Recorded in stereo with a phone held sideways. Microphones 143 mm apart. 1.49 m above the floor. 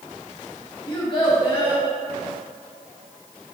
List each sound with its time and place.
0.9 s a child speaking: 35° left (ahead or behind), 0.8 m